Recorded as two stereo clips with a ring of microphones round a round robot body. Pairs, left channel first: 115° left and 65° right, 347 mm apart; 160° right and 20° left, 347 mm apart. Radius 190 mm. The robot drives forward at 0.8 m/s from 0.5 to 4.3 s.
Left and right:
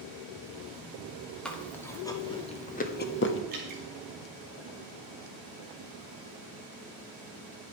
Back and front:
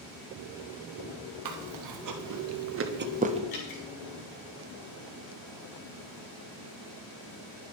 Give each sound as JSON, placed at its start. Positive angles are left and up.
{"t": 1.4, "sound": "chewing", "azimuth_deg": 25, "distance_m": 2.0}
{"t": 3.5, "sound": "dripping", "azimuth_deg": -135, "distance_m": 4.5}